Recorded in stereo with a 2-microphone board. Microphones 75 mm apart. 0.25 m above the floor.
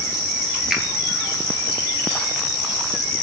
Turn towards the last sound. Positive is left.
turn(degrees=0)  # may be behind; listen again after turning